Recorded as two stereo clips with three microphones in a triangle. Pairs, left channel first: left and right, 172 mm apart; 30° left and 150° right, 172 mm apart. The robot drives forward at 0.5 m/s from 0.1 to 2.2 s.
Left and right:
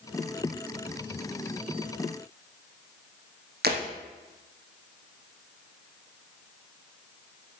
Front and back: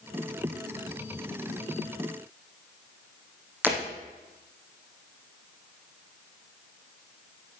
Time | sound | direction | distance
3.6 | breaking glass | 70° right | 3.5 m